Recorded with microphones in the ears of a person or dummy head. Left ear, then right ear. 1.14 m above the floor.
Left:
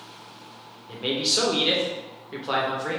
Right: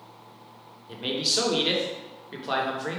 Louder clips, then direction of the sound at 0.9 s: Left 2 dB; 5° right (ahead or behind).